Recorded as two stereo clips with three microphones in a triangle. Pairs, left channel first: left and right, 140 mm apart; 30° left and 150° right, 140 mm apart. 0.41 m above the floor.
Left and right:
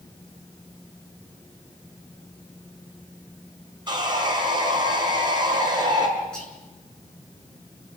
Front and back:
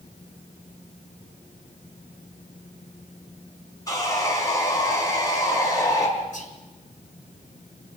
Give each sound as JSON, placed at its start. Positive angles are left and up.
{"t": 3.9, "sound": "sawing", "azimuth_deg": -35, "distance_m": 4.5}
{"t": 6.3, "sound": "whispering", "azimuth_deg": 5, "distance_m": 6.0}